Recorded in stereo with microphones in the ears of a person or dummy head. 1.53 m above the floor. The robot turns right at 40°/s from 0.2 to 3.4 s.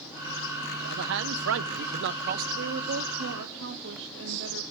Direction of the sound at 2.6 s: 110° right.